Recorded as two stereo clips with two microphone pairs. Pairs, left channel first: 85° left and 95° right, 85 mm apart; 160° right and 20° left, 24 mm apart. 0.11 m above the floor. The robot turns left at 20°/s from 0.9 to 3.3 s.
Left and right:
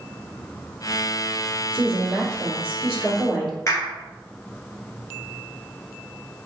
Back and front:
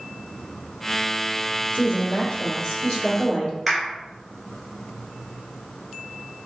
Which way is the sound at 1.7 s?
145° right.